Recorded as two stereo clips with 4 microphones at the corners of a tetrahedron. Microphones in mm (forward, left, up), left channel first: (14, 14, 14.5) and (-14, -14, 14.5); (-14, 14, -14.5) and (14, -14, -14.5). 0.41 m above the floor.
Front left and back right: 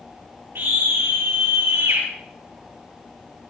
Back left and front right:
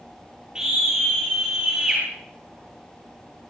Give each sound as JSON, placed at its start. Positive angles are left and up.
{"t": 0.6, "sound": "a scream", "azimuth_deg": -115, "distance_m": 8.0}